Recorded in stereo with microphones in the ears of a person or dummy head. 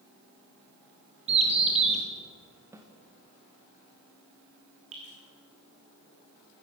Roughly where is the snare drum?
Centre.